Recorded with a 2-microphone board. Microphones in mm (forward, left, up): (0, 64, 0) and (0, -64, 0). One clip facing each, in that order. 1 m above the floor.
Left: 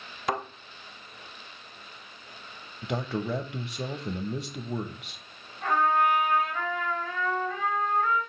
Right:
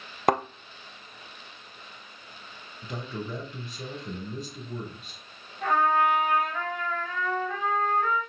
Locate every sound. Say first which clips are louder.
0.3 s a thud: right 6 dB; 55° right (ahead or behind), 0.5 m
2.8 s a man speaking: left 6 dB; 80° left, 0.8 m
5.6 s a trumpet: right 1 dB; 80° right, 4 m